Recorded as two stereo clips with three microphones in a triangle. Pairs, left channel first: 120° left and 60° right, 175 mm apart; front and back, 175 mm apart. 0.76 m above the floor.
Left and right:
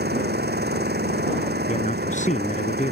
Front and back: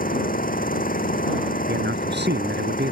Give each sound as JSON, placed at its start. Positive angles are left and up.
{"t": 0.0, "sound": "an engine running", "azimuth_deg": -35}
{"t": 1.7, "sound": "a man speaking", "azimuth_deg": 165}